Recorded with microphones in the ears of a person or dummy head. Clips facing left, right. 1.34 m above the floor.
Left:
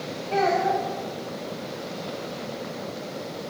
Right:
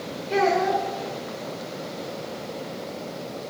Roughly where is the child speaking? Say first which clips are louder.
Right 1 dB; right.